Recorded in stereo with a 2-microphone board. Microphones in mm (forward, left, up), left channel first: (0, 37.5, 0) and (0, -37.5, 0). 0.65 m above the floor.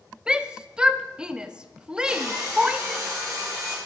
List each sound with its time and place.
0.3 s a shout: 10° right (ahead or behind), 0.5 m
2.1 s sawing: 45° right (ahead or behind), 6 m